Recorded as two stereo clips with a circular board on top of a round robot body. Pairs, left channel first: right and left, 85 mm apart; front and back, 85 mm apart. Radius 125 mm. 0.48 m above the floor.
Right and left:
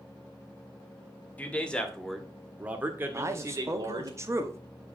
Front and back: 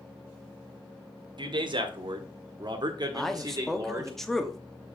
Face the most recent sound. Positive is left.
turn(degrees=85)